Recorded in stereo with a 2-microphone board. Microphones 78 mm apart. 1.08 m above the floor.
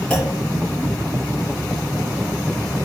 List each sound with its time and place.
0.1 s a clunk: 10° left (ahead or behind), 5 m